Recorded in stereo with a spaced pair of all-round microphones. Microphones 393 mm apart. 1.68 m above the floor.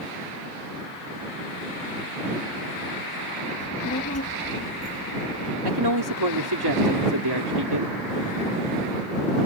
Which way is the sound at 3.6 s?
40° left (ahead or behind).